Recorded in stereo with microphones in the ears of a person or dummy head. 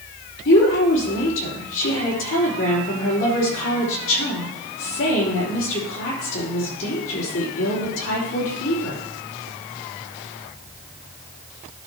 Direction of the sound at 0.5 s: 60° left (ahead or behind).